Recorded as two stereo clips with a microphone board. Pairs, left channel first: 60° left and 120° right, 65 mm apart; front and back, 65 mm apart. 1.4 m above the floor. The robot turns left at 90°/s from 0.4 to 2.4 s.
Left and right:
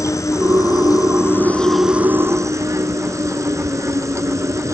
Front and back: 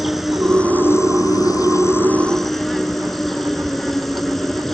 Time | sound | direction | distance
0.0 | an insect | 90° left | ?